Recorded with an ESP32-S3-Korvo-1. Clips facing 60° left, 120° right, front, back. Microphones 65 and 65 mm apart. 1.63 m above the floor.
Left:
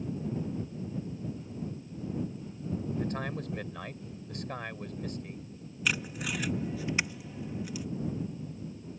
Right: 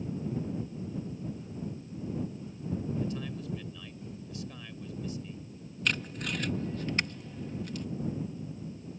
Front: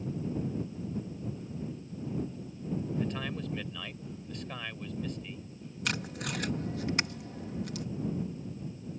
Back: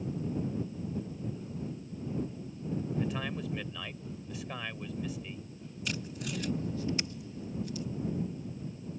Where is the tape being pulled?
25° right.